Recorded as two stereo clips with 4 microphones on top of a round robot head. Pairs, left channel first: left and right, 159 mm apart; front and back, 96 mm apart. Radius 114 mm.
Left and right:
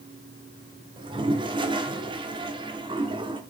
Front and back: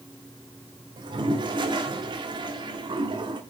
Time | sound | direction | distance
1.0 | a toilet flushing | 145° right | 1.1 m